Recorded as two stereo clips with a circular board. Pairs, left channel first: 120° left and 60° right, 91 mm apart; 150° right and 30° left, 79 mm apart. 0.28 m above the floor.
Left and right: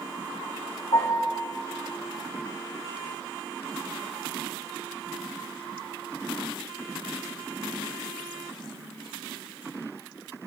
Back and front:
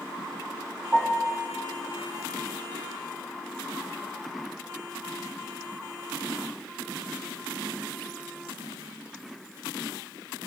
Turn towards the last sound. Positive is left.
turn(degrees=105)